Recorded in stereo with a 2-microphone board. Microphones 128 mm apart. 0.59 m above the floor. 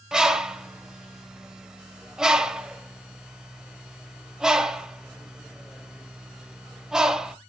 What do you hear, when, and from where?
0.1 s a bird: 5° right (ahead or behind), 0.8 m